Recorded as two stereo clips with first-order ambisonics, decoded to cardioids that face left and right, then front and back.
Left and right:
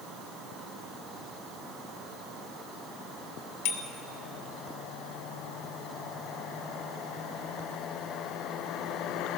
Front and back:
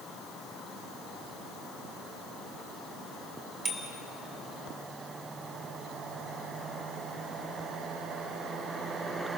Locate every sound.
3.6 s a bicycle bell: 105° left, 3 m